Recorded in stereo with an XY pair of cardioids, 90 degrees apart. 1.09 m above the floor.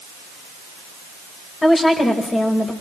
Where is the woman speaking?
30° left, 4.5 m.